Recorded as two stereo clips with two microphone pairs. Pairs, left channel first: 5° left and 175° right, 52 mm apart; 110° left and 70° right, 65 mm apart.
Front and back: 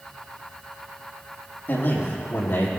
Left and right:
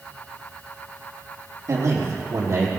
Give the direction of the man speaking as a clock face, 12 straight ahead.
1 o'clock.